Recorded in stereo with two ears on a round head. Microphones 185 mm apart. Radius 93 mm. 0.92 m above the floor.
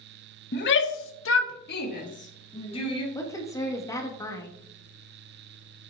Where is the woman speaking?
15° left (ahead or behind), 1.4 m.